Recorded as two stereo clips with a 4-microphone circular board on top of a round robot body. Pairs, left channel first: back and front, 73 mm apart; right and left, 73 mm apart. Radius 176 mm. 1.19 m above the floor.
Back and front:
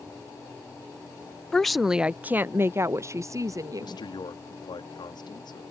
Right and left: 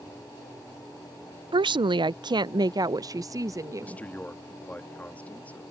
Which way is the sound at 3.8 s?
160° right.